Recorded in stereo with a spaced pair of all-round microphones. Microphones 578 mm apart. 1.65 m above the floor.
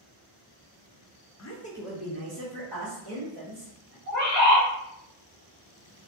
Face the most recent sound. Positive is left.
turn(degrees=-30)  # may be behind; listen again after turning